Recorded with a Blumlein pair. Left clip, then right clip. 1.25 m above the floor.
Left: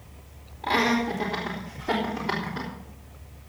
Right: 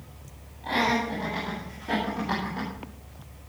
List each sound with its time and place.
0.6 s laughter: 60° left, 3 m; by 2.7 s 75° left, 4.5 m